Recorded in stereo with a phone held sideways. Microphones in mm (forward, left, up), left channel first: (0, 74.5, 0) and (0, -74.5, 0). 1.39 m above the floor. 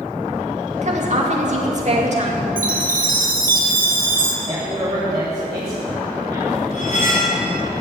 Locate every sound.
0.8 s a woman speaking: 50° right (ahead or behind), 2.5 m
2.6 s a chime: 70° right (ahead or behind), 1.7 m
4.5 s a man speaking: 40° right (ahead or behind), 4 m
6.7 s cutlery clinking: 60° left (ahead or behind), 4.5 m